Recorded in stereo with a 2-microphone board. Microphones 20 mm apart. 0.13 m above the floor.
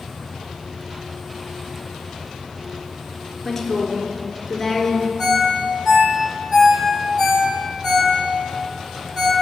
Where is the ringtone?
10° right (ahead or behind), 2.5 m.